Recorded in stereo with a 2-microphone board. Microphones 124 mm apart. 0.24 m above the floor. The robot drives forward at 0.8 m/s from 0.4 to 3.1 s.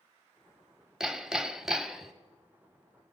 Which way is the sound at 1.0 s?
5° right (ahead or behind).